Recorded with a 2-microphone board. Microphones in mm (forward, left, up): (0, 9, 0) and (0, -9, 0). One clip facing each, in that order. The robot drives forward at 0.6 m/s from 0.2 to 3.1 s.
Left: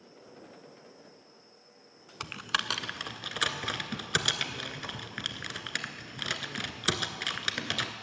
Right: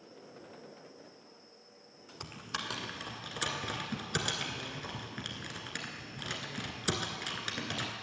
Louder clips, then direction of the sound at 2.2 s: Left 8 dB; 60° left (ahead or behind).